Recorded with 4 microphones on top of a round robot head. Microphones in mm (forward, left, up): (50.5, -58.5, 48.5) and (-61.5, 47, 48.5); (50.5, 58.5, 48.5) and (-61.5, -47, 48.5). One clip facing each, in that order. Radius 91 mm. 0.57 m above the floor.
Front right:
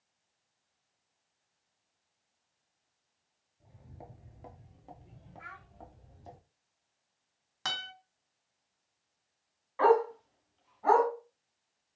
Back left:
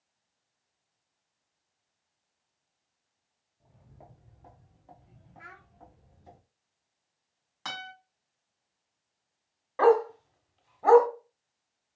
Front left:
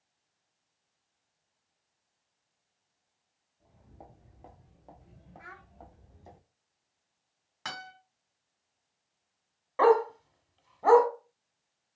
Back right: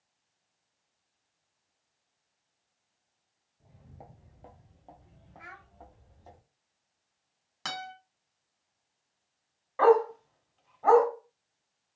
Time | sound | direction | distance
3.6 | footsteps | 100° right | 0.5 m
5.4 | a child speaking | 165° left | 1.1 m
7.7 | a guitar | 90° right | 2 m
9.8 | a dog barking | 95° left | 0.7 m